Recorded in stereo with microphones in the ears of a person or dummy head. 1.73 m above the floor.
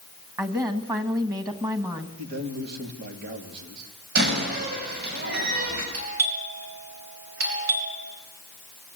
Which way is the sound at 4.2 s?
55° right (ahead or behind).